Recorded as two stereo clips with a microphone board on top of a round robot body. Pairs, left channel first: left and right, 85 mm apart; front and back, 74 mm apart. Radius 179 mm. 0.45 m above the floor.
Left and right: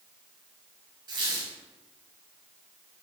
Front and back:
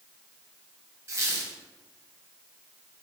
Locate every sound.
1.1 s a squeak: 130° right, 0.6 m